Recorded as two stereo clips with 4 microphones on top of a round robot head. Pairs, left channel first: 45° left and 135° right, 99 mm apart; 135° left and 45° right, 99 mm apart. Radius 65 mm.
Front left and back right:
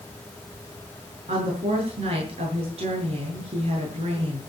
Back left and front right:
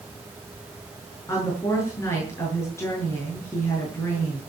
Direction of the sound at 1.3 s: 160° right.